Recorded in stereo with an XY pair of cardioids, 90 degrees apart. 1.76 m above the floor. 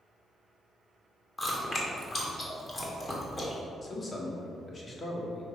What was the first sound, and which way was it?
Chewing, 30° left.